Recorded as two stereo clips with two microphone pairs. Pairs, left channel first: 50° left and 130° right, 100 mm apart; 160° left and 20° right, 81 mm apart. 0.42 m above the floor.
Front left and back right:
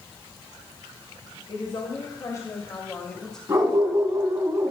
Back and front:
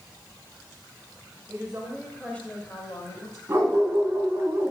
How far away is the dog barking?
About 1.8 m.